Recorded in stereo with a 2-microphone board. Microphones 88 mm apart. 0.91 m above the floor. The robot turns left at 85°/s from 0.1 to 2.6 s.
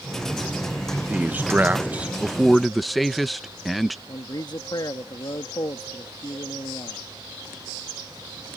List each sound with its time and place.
1.1 s a man speaking: 15° right (ahead or behind); by 4.0 s centre (ahead or behind)
4.1 s a man speaking: 55° left (ahead or behind)